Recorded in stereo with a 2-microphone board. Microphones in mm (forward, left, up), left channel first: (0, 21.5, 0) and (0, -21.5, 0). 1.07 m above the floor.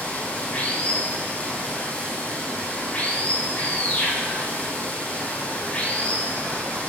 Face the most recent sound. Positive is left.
turn(degrees=30)  # may be behind; listen again after turning